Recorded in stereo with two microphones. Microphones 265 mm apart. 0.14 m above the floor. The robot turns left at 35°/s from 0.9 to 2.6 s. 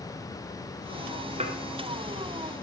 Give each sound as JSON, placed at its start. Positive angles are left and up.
{"t": 1.4, "sound": "dishes clattering", "side_deg": -25, "distance_m": 1.4}